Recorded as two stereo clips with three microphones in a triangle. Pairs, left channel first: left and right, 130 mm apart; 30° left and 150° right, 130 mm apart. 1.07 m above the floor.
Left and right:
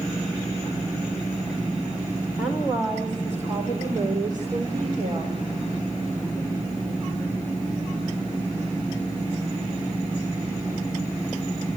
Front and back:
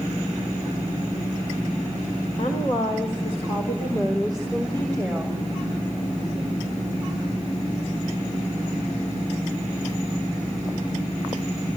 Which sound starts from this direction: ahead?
A woman speaking, at 2.4 s.